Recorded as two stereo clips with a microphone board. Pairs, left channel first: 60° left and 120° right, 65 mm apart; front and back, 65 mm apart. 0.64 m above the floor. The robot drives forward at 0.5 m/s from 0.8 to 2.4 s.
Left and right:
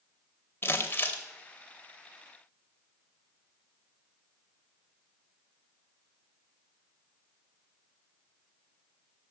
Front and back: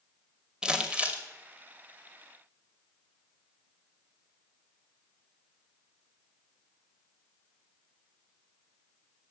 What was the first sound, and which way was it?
Crumpling, 105° left.